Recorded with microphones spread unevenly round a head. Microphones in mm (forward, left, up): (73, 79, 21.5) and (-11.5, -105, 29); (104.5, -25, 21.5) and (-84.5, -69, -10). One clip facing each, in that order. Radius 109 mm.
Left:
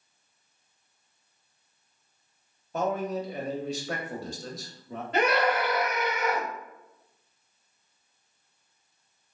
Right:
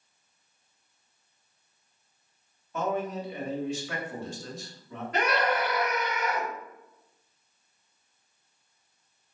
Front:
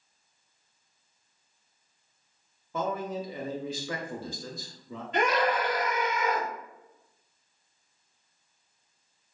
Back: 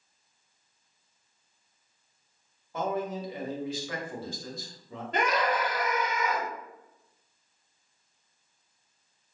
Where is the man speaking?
10° left, 0.8 m.